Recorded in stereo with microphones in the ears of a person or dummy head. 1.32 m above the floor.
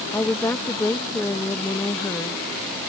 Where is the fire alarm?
I don't hear a fire alarm.